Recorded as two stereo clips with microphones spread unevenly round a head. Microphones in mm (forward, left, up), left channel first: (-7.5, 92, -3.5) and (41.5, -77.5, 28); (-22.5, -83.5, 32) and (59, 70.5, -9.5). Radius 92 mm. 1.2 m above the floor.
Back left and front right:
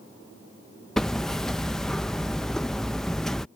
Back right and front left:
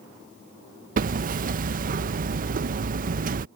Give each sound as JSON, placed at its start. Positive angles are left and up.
{"t": 1.0, "sound": "hammering", "azimuth_deg": 15}